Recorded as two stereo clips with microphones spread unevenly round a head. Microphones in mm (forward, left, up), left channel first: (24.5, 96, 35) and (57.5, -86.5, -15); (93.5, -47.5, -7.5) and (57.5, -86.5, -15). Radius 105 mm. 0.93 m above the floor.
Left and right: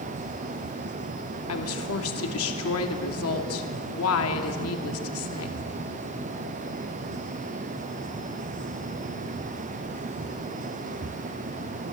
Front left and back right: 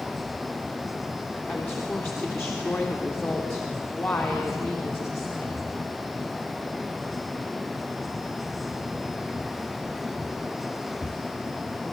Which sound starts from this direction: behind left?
A woman speaking, at 1.5 s.